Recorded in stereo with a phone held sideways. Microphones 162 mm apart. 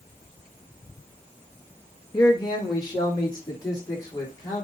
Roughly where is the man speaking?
Left.